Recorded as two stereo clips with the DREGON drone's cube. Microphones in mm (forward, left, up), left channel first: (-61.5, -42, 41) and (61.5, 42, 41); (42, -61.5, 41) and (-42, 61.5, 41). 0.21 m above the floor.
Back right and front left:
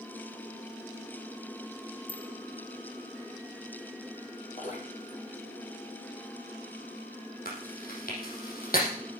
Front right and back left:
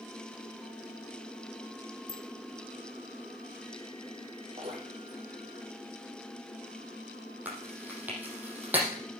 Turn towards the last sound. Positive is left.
turn(degrees=-155)